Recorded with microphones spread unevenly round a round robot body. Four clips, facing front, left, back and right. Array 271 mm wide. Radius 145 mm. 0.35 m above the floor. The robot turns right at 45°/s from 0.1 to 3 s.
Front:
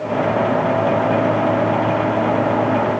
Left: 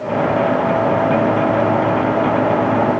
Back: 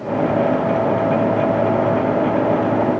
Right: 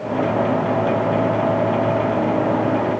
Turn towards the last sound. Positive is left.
No sound to turn to.